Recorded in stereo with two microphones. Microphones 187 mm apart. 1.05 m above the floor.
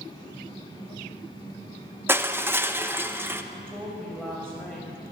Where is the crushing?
10° right (ahead or behind), 0.6 m.